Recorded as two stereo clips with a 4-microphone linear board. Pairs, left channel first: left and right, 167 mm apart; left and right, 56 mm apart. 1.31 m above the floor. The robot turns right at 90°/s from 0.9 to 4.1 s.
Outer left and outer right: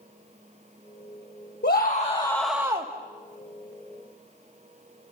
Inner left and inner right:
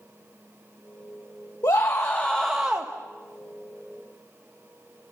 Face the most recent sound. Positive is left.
turn(degrees=-35)